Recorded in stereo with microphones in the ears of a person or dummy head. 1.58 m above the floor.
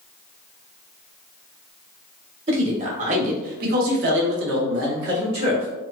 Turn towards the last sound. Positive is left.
turn(degrees=-40)  # may be behind; listen again after turning